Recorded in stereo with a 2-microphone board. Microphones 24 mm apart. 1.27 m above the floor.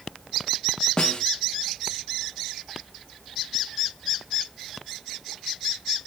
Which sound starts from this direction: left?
A snare drum, at 1.0 s.